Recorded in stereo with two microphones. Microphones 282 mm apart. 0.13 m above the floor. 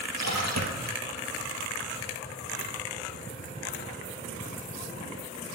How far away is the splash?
About 2.5 m.